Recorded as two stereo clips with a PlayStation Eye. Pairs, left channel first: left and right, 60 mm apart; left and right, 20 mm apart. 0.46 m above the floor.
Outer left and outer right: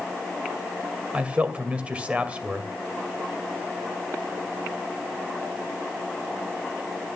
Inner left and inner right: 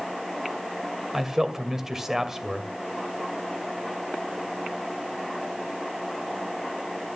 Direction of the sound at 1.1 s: 20° right (ahead or behind).